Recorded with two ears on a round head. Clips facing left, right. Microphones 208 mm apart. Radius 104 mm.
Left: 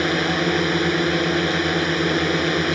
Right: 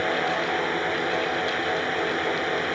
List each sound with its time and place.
0.0 s a drone: 60° left (ahead or behind)